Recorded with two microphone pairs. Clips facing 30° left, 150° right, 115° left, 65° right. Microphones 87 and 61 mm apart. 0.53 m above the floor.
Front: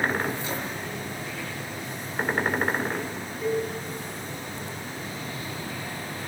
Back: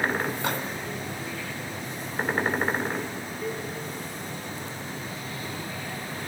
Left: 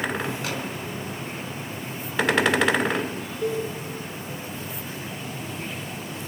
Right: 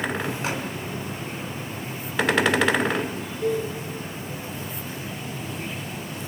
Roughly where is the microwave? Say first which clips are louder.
Back 3 dB, right 2 dB; behind right.